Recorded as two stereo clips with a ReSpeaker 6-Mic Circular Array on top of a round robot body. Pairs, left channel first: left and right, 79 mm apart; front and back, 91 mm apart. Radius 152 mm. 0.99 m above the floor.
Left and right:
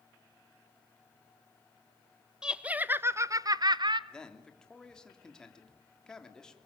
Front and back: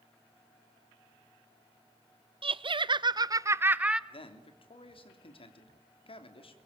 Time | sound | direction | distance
2.4 | laughter | 170° right | 1.2 m
4.1 | a man speaking | 10° left | 3 m